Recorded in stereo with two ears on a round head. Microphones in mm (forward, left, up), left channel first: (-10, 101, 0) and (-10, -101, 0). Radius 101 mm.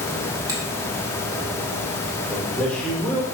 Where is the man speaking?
5° left (ahead or behind), 1.8 m.